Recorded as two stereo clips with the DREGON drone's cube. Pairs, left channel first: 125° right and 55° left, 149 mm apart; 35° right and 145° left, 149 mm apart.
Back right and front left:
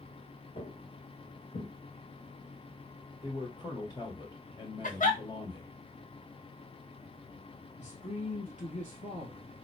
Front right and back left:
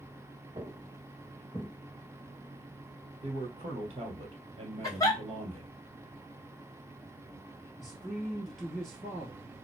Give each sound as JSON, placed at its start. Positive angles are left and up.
{"t": 0.6, "sound": "footsteps", "azimuth_deg": -160, "distance_m": 1.3}
{"t": 3.2, "sound": "a man speaking", "azimuth_deg": 180, "distance_m": 2.0}
{"t": 4.8, "sound": "a giggle", "azimuth_deg": -100, "distance_m": 1.3}
{"t": 7.8, "sound": "a man speaking", "azimuth_deg": -125, "distance_m": 1.6}